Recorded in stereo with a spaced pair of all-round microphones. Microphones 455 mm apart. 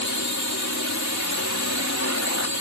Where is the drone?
35° left (ahead or behind).